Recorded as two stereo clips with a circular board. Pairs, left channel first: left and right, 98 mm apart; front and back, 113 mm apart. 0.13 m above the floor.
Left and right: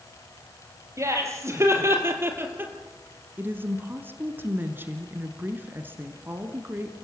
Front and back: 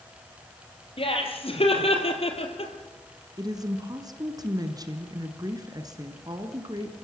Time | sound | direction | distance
1.0 | laughter | 30° right | 4 m
3.4 | a woman speaking | 150° right | 1.9 m